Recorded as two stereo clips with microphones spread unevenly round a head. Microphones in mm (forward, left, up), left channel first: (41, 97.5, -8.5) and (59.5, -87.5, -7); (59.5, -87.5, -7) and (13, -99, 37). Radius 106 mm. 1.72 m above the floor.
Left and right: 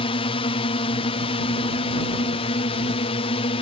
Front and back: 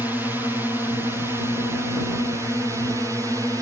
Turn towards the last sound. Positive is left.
turn(degrees=125)